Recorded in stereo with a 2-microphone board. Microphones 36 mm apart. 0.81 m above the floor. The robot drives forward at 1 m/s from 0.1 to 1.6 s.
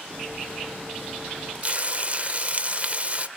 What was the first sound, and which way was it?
Frying, 35° right (ahead or behind).